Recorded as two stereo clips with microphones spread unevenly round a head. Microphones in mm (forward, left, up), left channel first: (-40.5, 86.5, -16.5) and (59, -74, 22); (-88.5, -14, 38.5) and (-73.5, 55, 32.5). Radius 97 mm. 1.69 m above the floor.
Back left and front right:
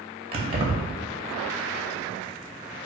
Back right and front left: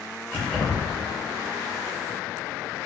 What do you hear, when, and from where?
0.3 s keys jangling: 40° right, 0.7 m